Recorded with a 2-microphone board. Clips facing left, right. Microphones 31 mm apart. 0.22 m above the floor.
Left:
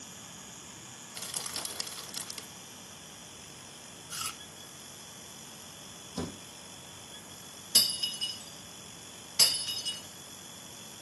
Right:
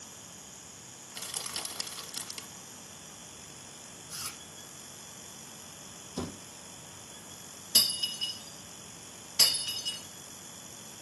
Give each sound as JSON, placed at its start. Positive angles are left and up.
{"t": 1.1, "sound": "crushing", "side_deg": -5, "distance_m": 0.7}
{"t": 4.1, "sound": "chewing", "side_deg": 75, "distance_m": 0.6}
{"t": 6.2, "sound": "a thud", "side_deg": 0, "distance_m": 3.5}
{"t": 7.8, "sound": "breaking glass", "side_deg": -10, "distance_m": 2.0}